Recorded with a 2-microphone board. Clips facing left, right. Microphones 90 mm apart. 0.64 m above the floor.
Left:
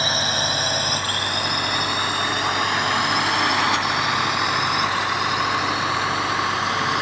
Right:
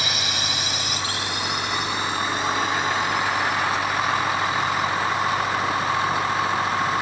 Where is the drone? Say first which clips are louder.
Left 5 dB; 40° left (ahead or behind); by 7.0 s 80° left.